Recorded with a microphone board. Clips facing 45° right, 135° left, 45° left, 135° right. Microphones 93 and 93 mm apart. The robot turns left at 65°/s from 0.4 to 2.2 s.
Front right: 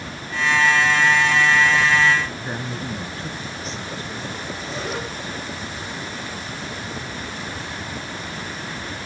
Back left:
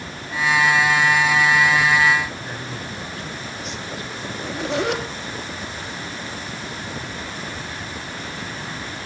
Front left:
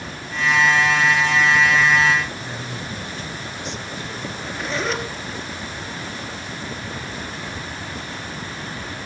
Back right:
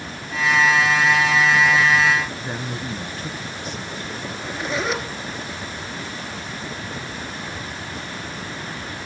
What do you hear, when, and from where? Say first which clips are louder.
2.4 s a man speaking: front right 3 dB, back right 2 dB; 95° right, 2.5 m
4.3 s a zipper: back left 5 dB, back right 2 dB; 140° left, 3 m